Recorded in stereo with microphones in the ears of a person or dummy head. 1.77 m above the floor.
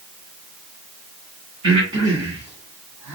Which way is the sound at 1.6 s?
20° right (ahead or behind).